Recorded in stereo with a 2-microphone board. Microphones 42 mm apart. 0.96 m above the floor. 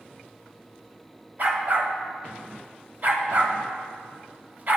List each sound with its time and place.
1.4 s a dog barking: 45° right (ahead or behind), 1.2 m